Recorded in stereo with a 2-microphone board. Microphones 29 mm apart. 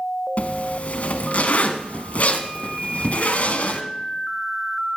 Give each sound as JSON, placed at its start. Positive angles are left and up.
{"t": 0.4, "sound": "a zipper", "side_deg": 60, "distance_m": 1.2}